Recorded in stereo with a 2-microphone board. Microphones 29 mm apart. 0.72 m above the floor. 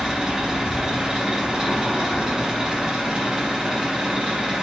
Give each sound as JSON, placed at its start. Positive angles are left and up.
{"t": 0.0, "sound": "an engine running", "side_deg": -25, "distance_m": 1.1}